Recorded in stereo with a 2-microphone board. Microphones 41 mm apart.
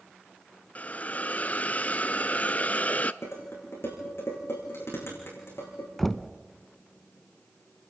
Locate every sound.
0.8 s a hiss: 40° left (ahead or behind), 0.5 m
3.2 s dishes clattering: 75° left (ahead or behind), 7.5 m
6.0 s knocking: 5° left (ahead or behind), 0.9 m